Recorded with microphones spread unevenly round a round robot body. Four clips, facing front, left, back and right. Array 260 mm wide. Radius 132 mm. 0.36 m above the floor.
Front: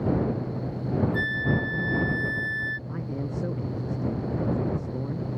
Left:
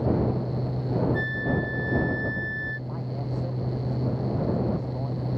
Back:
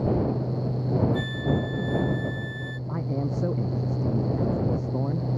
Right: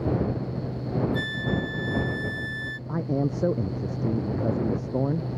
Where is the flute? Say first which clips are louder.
Left 1 dB, even; 120° right.